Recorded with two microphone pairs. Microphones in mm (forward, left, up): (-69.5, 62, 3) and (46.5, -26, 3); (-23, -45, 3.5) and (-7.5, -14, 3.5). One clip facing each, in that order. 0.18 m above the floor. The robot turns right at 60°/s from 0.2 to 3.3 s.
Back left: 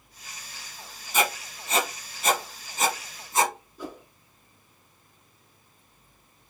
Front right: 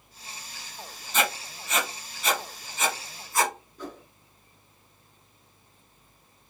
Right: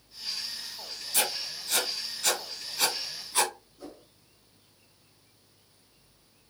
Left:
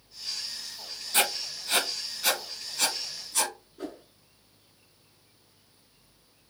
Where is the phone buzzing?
I don't hear a phone buzzing.